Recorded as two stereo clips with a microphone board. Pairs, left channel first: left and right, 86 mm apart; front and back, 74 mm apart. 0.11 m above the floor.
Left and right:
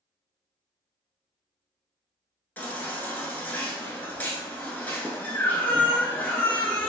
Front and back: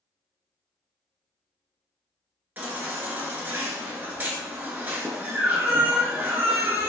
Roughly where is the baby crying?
Behind left.